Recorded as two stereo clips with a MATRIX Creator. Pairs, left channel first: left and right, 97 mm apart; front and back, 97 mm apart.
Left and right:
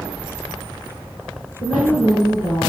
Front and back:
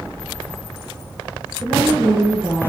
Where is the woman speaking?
85° left, 2.5 m.